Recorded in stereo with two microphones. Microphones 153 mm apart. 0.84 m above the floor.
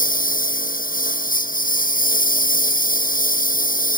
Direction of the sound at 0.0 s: 65° left (ahead or behind).